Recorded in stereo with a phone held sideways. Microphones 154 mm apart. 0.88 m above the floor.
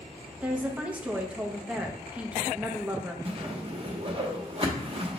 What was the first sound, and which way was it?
A woman speaking, 10° right (ahead or behind).